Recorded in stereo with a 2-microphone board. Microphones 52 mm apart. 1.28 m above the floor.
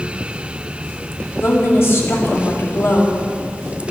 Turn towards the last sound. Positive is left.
turn(degrees=55)  # may be behind; listen again after turning